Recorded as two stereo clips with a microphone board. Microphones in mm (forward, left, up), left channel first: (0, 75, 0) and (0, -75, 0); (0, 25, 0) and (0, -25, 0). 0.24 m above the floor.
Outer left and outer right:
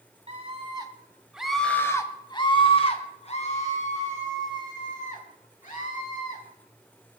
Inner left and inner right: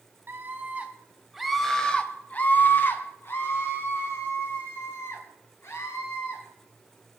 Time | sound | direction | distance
0.3 | a scream | 40° right (ahead or behind) | 2 m